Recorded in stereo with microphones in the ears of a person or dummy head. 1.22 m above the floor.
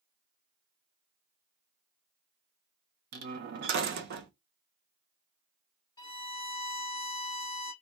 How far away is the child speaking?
No child speaking in this recording.